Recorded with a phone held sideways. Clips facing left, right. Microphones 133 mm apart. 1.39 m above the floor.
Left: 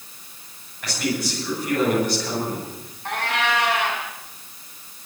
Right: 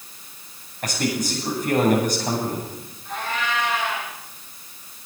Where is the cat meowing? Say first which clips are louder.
Left 3 dB; 70° left (ahead or behind), 5.5 m.